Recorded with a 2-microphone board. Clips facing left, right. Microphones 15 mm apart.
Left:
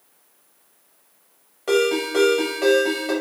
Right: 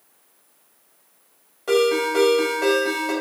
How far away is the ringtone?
About 0.8 m.